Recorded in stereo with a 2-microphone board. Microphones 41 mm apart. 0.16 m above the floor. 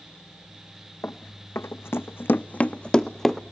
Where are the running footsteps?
70° left (ahead or behind), 0.8 m; by 3.4 s 5° left (ahead or behind), 0.8 m.